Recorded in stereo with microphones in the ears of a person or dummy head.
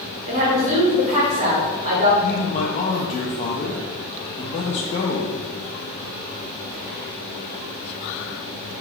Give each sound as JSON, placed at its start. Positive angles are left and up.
{"t": 0.3, "sound": "a woman speaking", "side_deg": -45, "distance_m": 1.7}
{"t": 2.2, "sound": "a man speaking", "side_deg": 35, "distance_m": 0.8}